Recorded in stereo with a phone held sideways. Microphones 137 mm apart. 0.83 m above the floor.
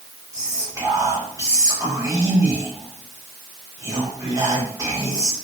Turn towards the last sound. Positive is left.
turn(degrees=-25)  # may be behind; listen again after turning